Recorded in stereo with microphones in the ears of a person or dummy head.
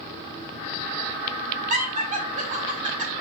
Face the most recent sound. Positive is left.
turn(degrees=-40)  # may be behind; listen again after turning